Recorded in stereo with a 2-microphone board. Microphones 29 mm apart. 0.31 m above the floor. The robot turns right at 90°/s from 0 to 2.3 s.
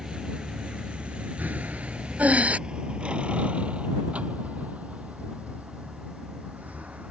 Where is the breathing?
70° right (ahead or behind); by 2.6 s 60° right (ahead or behind).